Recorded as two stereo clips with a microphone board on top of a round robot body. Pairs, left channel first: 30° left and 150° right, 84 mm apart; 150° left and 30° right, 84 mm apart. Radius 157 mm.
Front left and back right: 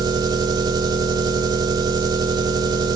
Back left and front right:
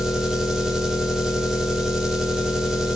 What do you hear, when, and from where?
0.0 s an engine running: 115° right, 0.7 m